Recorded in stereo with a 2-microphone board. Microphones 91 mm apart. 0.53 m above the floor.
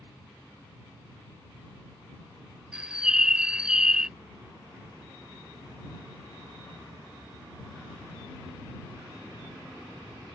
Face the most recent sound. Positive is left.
turn(degrees=-10)  # may be behind; listen again after turning